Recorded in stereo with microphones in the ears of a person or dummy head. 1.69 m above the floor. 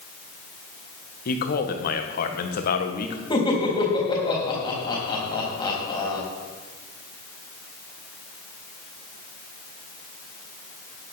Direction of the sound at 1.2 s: 55° left (ahead or behind).